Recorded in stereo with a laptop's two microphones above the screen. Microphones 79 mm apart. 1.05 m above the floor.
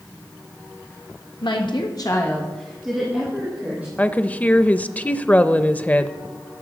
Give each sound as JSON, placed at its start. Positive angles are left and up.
{"t": 1.4, "sound": "a woman speaking", "side_deg": 75, "distance_m": 1.4}
{"t": 4.0, "sound": "a woman speaking", "side_deg": 20, "distance_m": 0.6}